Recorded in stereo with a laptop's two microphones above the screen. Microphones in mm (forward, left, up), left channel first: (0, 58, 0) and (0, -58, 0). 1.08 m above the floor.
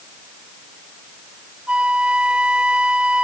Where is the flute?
10° right (ahead or behind).